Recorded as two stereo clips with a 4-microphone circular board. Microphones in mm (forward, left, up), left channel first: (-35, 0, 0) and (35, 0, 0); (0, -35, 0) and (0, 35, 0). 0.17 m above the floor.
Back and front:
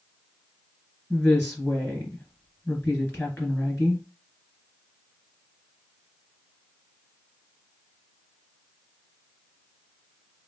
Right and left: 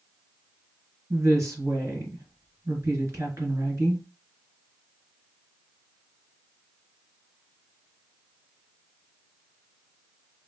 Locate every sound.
1.1 s a woman speaking: 130° left, 2.5 m